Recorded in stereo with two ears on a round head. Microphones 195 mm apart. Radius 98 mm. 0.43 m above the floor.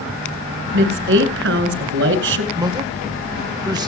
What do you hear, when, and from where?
0.7 s a woman speaking: 55° right (ahead or behind), 2.5 m
2.5 s a man speaking: 20° right (ahead or behind), 1.1 m